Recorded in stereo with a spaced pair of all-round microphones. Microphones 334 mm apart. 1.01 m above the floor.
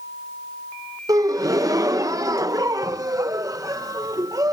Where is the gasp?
10° right (ahead or behind).